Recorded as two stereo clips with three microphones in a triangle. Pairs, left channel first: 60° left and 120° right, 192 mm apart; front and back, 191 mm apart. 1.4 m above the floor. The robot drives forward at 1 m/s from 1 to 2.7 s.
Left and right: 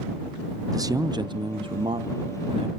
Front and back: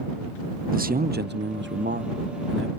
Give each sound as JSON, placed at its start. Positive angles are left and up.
{"t": 0.7, "sound": "a man speaking", "azimuth_deg": 180, "distance_m": 0.6}